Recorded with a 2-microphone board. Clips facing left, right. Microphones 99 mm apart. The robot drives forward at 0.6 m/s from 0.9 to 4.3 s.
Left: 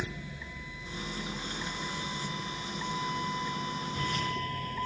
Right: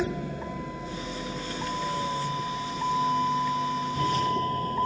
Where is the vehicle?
60° right (ahead or behind); by 4.9 s 40° right (ahead or behind).